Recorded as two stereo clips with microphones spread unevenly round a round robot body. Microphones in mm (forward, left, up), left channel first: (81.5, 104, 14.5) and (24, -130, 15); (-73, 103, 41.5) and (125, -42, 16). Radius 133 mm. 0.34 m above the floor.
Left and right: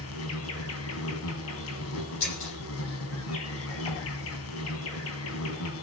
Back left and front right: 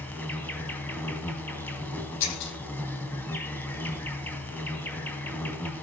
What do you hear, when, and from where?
0.0 s an insect: 60° left, 3 m
2.2 s breaking glass: 125° left, 9.5 m